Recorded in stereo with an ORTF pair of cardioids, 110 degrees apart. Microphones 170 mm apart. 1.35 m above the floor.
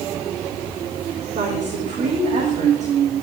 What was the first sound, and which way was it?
A woman speaking, 40° right.